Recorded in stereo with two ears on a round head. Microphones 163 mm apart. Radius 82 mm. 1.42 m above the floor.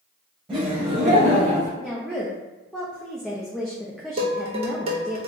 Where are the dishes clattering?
30° right (ahead or behind), 0.9 m.